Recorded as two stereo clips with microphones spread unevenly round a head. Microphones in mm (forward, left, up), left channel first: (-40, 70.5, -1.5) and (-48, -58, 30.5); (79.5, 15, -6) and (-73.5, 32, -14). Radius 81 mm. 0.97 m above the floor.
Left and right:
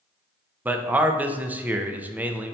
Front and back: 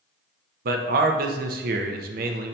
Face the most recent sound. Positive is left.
turn(degrees=180)